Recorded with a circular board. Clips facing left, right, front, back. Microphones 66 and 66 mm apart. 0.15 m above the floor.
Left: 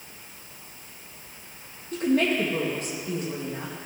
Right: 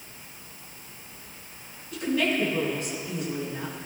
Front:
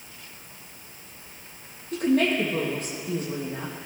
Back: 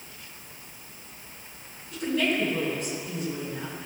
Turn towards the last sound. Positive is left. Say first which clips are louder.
# left 3 dB, front 4 dB
turn(degrees=40)